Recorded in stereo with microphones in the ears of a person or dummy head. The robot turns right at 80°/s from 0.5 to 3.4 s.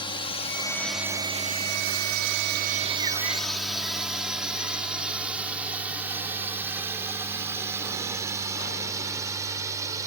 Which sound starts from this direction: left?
A drone, at 0.0 s.